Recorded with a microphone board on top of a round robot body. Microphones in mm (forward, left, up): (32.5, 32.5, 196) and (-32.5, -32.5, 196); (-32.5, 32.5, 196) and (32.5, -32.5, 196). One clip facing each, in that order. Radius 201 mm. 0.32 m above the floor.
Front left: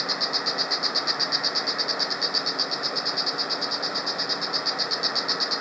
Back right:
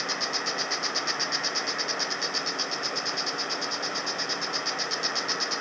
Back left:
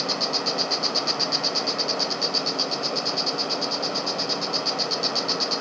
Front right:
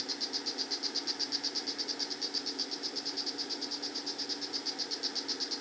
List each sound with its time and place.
0.0 s an insect: 125° left